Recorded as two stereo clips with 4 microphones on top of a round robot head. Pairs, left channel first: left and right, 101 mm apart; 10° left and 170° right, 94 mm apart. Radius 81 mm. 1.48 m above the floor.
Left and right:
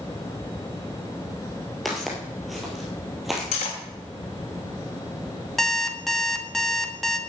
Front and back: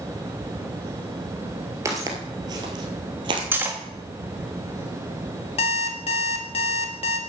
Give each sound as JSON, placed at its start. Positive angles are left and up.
{"t": 1.9, "sound": "footsteps", "azimuth_deg": 180, "distance_m": 1.6}
{"t": 3.5, "sound": "cutlery clinking", "azimuth_deg": 125, "distance_m": 1.6}
{"t": 5.6, "sound": "an alarm clock", "azimuth_deg": 5, "distance_m": 1.4}